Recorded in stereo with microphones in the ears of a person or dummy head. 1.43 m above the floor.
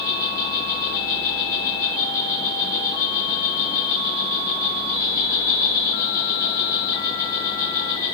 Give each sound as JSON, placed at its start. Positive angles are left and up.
{"t": 0.0, "sound": "an insect", "side_deg": 25, "distance_m": 5.5}